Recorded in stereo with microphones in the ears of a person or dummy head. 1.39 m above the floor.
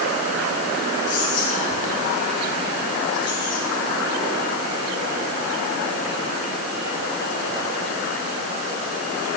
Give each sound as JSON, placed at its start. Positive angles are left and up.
{"t": 1.1, "sound": "whispering", "side_deg": 50, "distance_m": 5.5}